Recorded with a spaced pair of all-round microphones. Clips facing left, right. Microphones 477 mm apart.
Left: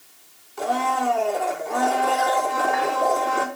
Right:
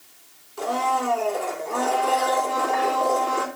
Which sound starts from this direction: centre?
A blender, at 0.6 s.